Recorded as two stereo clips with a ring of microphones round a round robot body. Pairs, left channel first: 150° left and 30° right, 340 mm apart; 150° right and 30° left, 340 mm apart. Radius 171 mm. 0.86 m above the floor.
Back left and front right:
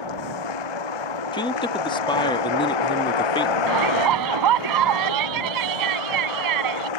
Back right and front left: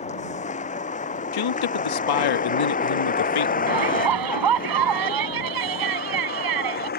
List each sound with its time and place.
0.0 s a vehicle: 140° left; by 7.0 s 145° left
1.3 s a man speaking: 135° right
3.7 s a shout: straight ahead